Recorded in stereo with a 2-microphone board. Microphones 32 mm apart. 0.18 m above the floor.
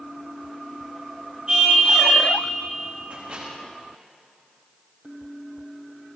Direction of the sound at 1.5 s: 40° right (ahead or behind).